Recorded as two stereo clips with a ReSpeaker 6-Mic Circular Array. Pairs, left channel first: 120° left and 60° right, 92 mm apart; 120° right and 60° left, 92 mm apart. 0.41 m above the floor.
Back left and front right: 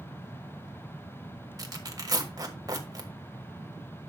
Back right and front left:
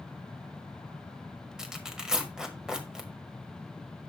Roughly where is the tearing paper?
Ahead.